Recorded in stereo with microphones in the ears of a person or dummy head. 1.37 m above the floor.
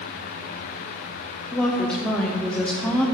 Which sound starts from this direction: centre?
A woman speaking, at 1.5 s.